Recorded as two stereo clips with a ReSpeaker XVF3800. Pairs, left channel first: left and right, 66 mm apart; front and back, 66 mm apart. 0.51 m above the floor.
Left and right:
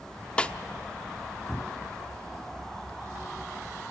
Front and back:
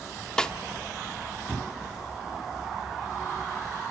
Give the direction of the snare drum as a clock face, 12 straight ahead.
10 o'clock.